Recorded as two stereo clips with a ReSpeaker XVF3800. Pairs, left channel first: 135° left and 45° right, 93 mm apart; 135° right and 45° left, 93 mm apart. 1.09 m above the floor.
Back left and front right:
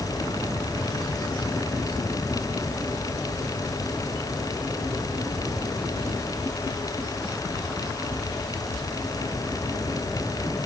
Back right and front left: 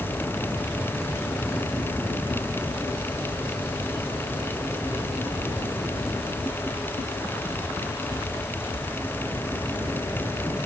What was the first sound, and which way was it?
Only background noise.